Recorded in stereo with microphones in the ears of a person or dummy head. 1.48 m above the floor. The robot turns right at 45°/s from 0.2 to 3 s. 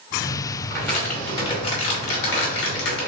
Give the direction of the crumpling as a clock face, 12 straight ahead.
12 o'clock.